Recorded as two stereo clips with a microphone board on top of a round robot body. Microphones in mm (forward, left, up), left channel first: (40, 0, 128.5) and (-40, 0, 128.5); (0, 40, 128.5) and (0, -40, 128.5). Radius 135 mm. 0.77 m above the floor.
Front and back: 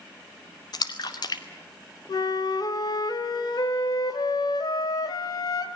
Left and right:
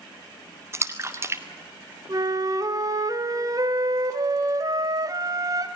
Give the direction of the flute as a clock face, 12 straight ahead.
1 o'clock.